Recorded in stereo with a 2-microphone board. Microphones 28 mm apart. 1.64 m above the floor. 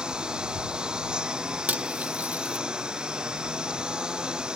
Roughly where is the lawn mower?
Right.